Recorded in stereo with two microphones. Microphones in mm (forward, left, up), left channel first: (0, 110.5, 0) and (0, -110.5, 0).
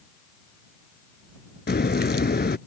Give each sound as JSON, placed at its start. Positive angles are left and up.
{"t": 1.7, "sound": "a crack", "side_deg": 50}